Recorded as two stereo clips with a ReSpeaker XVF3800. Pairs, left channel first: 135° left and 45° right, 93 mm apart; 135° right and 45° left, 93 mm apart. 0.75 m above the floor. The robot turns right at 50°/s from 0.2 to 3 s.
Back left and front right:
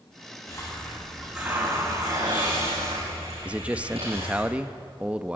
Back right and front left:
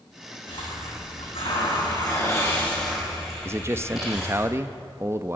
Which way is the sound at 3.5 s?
20° left.